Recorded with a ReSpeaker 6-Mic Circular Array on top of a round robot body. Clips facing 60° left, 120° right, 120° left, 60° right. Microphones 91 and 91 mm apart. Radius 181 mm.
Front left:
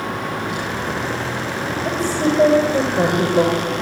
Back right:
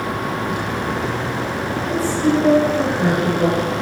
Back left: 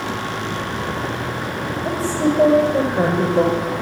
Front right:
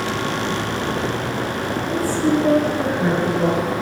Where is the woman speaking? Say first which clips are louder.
Back right 1 dB, even; 100° left, 6 m; by 3.5 s 90° left, 4.5 m.